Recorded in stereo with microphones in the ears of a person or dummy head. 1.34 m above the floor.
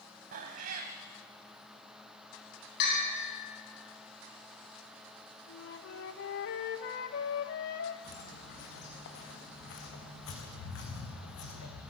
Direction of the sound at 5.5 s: 60° left (ahead or behind).